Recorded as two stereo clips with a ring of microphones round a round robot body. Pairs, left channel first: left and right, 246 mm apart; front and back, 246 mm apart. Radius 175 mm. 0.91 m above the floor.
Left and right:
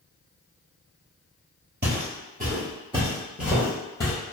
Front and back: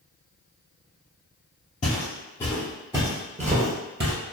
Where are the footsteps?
60° right, 1.2 m; by 4.1 s 160° left, 1.2 m.